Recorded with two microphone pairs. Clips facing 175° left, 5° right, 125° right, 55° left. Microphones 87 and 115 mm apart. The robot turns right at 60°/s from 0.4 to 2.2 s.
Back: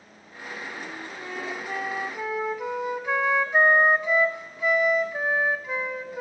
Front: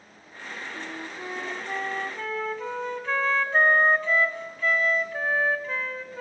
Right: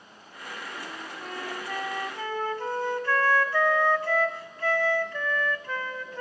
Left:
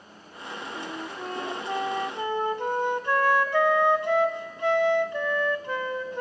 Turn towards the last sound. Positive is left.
turn(degrees=110)